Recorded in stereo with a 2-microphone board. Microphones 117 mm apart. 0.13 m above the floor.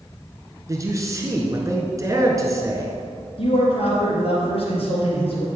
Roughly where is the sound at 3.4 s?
Left.